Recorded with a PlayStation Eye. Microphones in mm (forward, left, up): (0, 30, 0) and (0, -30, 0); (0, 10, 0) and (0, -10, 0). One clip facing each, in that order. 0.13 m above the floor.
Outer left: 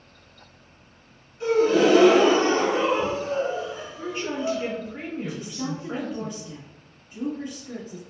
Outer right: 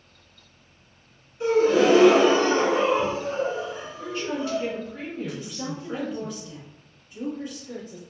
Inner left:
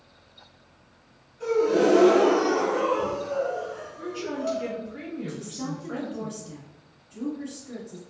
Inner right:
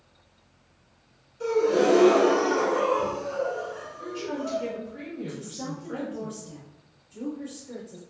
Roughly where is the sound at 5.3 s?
Left.